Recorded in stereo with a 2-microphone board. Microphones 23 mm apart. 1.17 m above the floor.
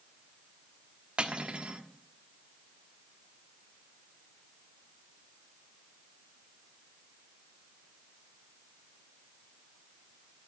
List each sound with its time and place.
1.2 s cutlery clinking: 55° right (ahead or behind), 1.2 m